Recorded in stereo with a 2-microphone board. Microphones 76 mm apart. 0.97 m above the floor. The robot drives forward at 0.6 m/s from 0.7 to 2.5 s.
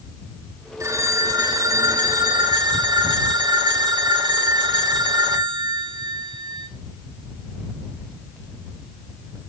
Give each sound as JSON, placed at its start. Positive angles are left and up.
{"t": 0.8, "sound": "a phone ringing", "side_deg": -45, "distance_m": 2.5}